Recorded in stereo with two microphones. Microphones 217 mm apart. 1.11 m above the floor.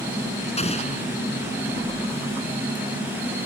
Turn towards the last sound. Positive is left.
turn(degrees=30)  # may be behind; listen again after turning